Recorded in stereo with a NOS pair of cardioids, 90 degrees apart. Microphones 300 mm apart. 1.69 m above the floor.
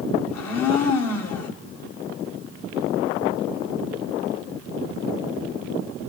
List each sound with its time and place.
0.3 s a blender: 60° left, 1.6 m